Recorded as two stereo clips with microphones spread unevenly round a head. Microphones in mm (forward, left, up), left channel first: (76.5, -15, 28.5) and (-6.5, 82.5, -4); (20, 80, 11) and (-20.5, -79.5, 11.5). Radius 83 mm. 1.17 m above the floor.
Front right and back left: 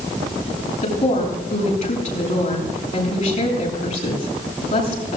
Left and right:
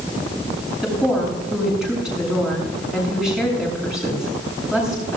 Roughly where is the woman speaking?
Ahead.